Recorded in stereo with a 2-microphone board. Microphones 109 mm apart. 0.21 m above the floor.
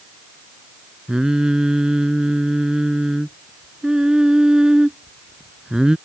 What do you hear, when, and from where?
1.1 s singing: 5° right (ahead or behind)